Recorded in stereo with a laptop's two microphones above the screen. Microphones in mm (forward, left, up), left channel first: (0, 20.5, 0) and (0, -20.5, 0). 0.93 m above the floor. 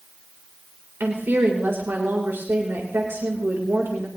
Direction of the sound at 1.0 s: 80° right.